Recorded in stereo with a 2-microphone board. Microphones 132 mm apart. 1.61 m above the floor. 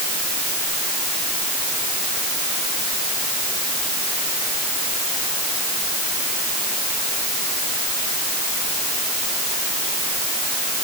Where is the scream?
I don't hear a scream.